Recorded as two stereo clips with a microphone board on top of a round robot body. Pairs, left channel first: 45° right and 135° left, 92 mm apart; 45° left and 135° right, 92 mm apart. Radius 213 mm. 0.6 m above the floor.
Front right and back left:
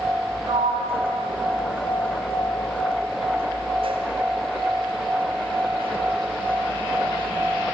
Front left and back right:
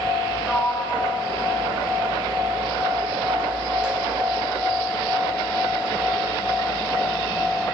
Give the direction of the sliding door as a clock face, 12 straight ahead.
7 o'clock.